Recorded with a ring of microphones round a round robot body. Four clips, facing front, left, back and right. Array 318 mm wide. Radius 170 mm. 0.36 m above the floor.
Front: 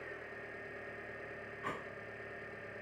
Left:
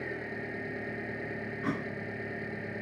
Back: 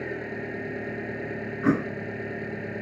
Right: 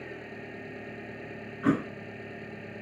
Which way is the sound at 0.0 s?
170° left.